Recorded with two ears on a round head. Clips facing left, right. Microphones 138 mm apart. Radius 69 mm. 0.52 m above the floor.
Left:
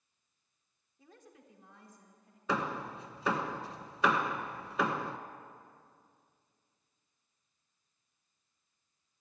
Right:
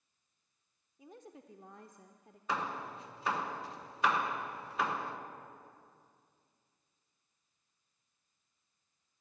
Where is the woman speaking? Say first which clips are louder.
Right 5 dB; 15° right (ahead or behind), 1.1 m; by 2.4 s 50° right (ahead or behind), 1.3 m.